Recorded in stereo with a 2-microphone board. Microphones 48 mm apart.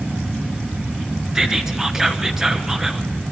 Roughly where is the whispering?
Centre.